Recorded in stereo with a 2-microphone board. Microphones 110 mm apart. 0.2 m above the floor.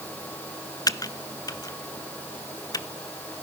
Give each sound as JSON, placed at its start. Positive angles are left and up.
{"t": 0.9, "sound": "typing on a keyboard", "side_deg": 35, "distance_m": 0.6}